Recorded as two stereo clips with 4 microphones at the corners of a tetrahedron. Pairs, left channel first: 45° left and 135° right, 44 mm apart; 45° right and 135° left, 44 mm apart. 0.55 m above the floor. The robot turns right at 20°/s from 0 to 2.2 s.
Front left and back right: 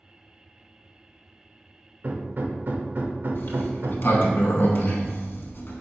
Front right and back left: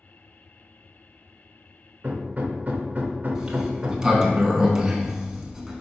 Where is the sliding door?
65° left, 0.7 m.